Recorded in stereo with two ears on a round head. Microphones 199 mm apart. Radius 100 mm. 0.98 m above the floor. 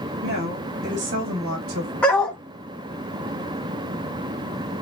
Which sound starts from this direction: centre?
A dog barking, at 2.0 s.